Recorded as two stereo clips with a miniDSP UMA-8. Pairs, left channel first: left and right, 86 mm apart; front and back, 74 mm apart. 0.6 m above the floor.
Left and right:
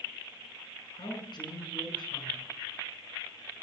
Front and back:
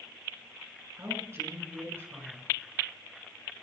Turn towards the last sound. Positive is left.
turn(degrees=120)